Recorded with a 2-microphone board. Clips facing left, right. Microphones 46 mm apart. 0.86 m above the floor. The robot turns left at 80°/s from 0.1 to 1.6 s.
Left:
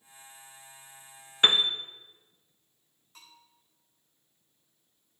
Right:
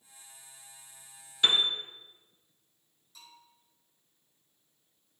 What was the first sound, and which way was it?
A piano, 40° left (ahead or behind).